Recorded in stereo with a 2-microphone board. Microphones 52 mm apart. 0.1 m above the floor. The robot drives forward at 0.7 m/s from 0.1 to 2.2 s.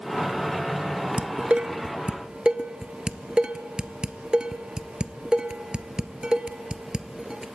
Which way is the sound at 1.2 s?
25° right (ahead or behind).